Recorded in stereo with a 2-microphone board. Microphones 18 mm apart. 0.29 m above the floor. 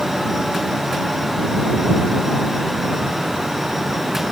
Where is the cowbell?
I don't hear a cowbell.